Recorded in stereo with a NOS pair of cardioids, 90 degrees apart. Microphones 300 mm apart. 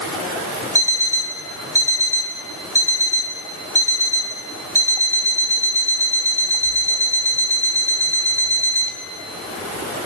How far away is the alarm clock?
About 4 m.